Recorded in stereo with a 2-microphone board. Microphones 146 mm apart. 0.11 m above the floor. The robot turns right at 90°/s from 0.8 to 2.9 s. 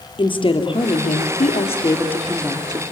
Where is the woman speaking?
45° left, 2.5 m; by 2.8 s 135° right, 2.5 m.